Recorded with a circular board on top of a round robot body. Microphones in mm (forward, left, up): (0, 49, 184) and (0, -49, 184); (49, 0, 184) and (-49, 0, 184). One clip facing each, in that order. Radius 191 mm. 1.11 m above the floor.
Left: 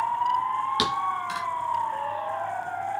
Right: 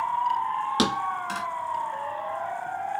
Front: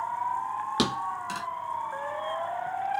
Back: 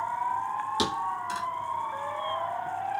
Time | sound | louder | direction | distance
0.8 | a thud | even, even | 35° right | 2.5 m